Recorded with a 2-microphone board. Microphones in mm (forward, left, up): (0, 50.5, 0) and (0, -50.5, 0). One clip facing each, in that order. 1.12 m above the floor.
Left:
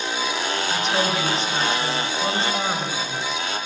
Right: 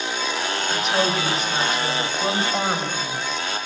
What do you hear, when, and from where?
0.7 s a woman speaking: centre (ahead or behind), 5.5 m; by 3.2 s 20° right (ahead or behind), 5 m